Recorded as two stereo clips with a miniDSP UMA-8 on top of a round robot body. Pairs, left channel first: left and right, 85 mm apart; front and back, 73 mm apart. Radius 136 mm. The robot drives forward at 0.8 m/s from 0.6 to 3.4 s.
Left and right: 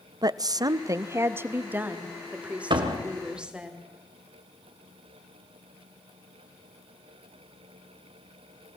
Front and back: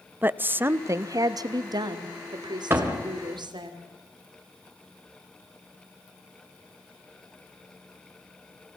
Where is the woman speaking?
120° right, 0.8 m; by 3.7 s 170° right, 2.5 m.